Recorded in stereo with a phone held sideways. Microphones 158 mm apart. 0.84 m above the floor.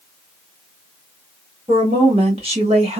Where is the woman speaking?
40° right (ahead or behind), 1.8 m.